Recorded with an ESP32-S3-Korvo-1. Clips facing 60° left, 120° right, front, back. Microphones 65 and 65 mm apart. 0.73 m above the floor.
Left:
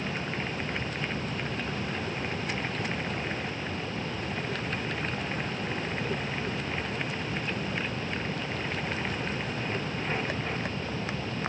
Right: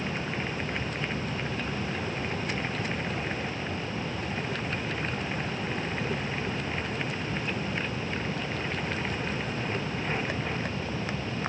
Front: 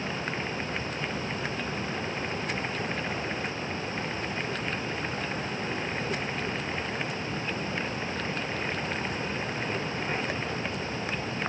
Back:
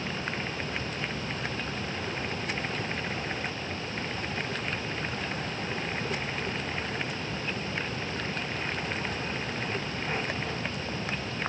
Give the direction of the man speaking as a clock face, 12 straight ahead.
No man speaking in this recording.